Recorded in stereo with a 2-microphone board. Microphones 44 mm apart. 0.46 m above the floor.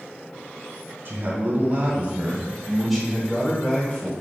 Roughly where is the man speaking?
Right.